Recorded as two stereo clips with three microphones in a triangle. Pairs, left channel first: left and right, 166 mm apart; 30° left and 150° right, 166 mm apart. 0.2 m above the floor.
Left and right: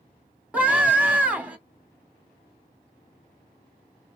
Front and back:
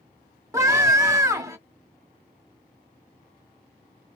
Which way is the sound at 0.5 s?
155° right.